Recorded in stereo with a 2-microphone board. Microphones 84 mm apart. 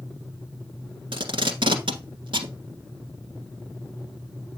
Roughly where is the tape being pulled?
Right.